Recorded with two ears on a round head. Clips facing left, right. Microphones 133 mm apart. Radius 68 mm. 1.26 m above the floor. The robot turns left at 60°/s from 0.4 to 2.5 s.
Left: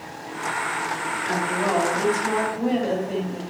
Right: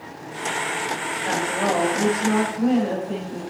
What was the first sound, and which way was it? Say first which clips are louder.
A woman speaking: right 1 dB; 115° right.